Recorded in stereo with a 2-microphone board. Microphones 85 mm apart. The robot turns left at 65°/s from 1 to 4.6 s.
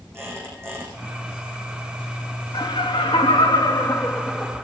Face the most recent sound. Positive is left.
turn(degrees=-10)